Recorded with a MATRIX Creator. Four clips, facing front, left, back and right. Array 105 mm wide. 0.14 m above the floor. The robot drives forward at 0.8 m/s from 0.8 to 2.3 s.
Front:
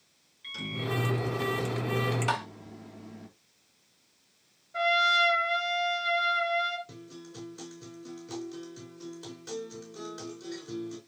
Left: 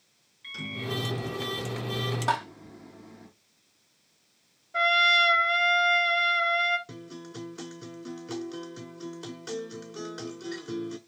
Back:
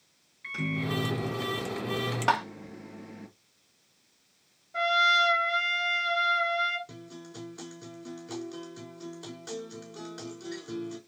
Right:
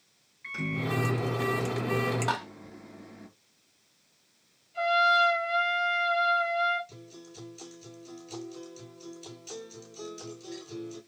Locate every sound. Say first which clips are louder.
0.4 s a microwave: right 3 dB, back 3 dB; 145° right, 1.7 m; by 3.3 s 165° right, 2.5 m
2.3 s tapping: left 4 dB, back 9 dB; 175° left, 1.8 m
4.7 s a trumpet: right 1 dB, back 1 dB; 100° left, 2.5 m
6.9 s a guitar: left 6 dB, back 1 dB; 110° left, 5 m